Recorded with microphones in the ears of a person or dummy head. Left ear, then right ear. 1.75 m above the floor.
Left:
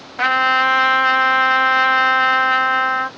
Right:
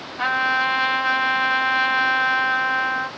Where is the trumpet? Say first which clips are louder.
Left 5 dB; 45° left (ahead or behind), 0.9 m.